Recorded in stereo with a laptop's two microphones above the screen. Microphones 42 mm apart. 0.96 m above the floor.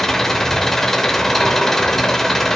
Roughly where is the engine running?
Centre.